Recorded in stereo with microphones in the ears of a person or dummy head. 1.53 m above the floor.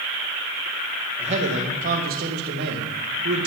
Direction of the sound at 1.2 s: 35° right (ahead or behind).